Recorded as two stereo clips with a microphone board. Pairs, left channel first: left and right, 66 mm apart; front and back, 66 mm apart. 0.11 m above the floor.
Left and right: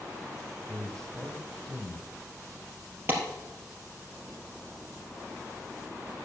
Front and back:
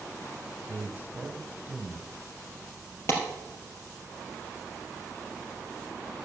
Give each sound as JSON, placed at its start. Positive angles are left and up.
{"t": 0.7, "sound": "a man speaking", "azimuth_deg": 160, "distance_m": 1.5}
{"t": 3.1, "sound": "a clap", "azimuth_deg": -40, "distance_m": 2.5}